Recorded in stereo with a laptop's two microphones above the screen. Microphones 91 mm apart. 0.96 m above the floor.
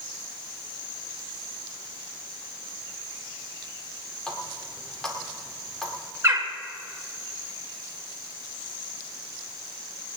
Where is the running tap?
10° left (ahead or behind), 1.9 m.